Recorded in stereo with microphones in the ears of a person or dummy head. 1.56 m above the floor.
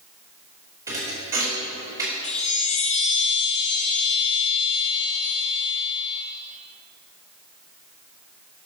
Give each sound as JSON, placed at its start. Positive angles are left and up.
{"t": 0.9, "sound": "a thud", "side_deg": -20, "distance_m": 2.5}
{"t": 2.2, "sound": "a chime", "side_deg": 30, "distance_m": 0.9}